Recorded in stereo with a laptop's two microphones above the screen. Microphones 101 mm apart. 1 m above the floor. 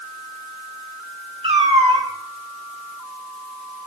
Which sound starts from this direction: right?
A cat meowing, at 1.4 s.